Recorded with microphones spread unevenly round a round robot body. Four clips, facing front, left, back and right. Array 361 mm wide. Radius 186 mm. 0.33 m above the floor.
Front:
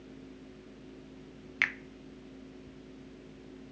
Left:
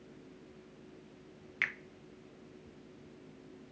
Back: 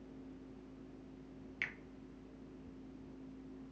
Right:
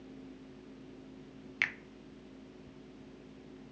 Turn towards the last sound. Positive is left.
turn(degrees=-50)